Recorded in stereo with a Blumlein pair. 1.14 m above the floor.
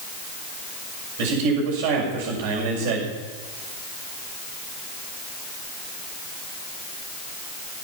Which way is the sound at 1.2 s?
50° right.